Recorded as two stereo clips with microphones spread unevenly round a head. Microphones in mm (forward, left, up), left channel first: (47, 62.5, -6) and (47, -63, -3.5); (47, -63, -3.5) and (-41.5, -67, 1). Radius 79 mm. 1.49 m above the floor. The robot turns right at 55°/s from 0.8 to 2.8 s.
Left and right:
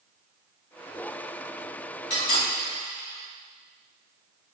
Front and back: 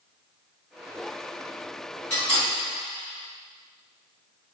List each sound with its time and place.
2.1 s cutlery clinking: 70° left, 1.9 m; by 2.5 s 95° left, 1.9 m